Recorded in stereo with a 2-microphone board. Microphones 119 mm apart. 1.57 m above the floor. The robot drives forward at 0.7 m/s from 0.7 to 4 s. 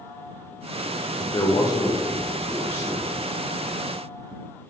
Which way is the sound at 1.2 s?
40° left (ahead or behind).